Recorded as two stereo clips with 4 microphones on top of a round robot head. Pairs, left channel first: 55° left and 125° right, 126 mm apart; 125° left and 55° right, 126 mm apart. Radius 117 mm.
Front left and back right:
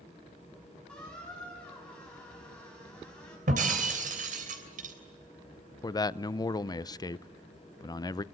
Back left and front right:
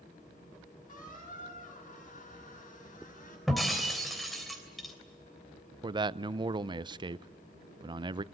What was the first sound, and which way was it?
A squeak, 140° left.